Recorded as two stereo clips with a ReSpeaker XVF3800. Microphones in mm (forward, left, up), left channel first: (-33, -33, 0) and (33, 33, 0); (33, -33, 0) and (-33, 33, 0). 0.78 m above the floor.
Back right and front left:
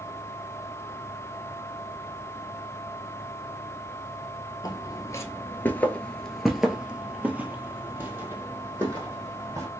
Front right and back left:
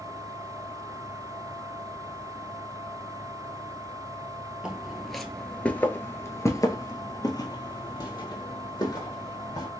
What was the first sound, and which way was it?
Footsteps, 150° right.